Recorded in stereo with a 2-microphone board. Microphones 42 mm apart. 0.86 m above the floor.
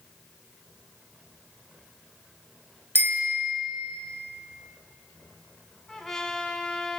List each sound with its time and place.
3.0 s a bicycle bell: 65° right (ahead or behind), 2 m
5.9 s a trumpet: 10° left (ahead or behind), 1.6 m